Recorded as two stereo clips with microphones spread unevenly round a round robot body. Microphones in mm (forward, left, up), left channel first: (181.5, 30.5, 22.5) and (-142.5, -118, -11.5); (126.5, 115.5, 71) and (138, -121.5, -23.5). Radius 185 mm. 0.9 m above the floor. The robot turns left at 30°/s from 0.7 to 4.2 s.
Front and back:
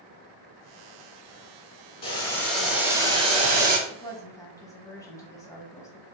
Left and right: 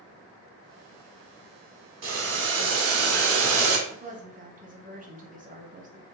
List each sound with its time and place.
2.0 s boiling: 40° right, 1.0 m; by 3.8 s 95° right, 1.0 m
3.9 s a woman speaking: 50° right, 1.0 m; by 6.0 s 60° right, 1.0 m